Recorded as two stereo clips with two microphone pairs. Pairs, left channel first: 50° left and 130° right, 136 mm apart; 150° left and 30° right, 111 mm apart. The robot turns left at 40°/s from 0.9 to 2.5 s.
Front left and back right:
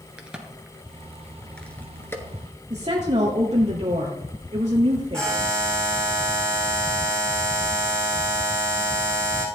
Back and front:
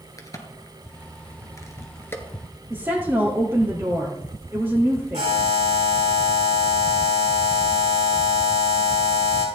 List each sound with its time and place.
0.2 s a crack: 155° left, 1.6 m; by 2.2 s 100° left, 1.6 m
2.7 s a woman speaking: 95° right, 2 m
5.1 s a buzzer: 35° right, 5.5 m